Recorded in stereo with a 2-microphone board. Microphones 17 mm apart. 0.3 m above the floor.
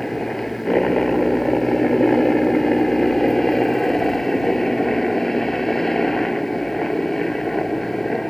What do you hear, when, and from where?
0.0 s a helicopter: 20° left (ahead or behind)